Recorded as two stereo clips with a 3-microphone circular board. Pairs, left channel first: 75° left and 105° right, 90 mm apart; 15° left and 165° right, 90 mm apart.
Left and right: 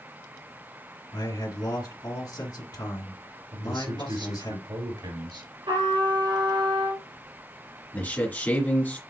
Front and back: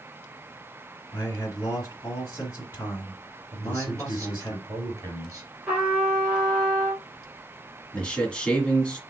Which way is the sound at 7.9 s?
70° left.